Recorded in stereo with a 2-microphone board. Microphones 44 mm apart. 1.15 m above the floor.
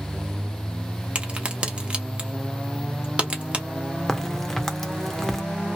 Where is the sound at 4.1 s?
10° left (ahead or behind), 0.7 m.